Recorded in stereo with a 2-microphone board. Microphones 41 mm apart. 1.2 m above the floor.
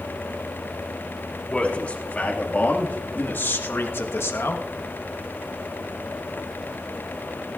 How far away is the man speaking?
About 2.5 m.